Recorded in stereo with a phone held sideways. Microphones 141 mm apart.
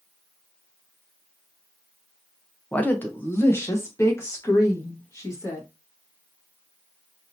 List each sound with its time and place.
2.7 s a woman speaking: 10° left (ahead or behind), 0.6 m; by 5.7 s 20° left (ahead or behind), 2 m